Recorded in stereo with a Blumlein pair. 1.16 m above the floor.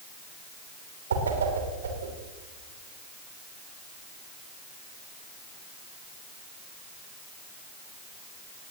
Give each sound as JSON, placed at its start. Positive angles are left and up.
{"t": 1.1, "sound": "a whoosh", "azimuth_deg": -65, "distance_m": 3.0}